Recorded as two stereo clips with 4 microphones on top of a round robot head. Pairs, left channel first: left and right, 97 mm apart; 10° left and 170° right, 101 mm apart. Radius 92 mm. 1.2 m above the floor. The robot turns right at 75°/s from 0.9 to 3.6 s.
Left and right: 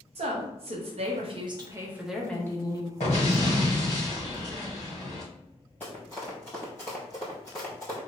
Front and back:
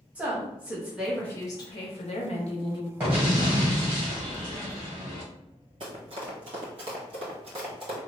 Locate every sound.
0.1 s a woman speaking: 95° right, 1.0 m; by 2.9 s 55° left, 1.0 m
3.0 s an explosion: 115° left, 1.6 m; by 5.2 s 160° left, 1.6 m
5.8 s running footsteps: 170° left, 1.6 m; by 8.0 s 160° left, 2.5 m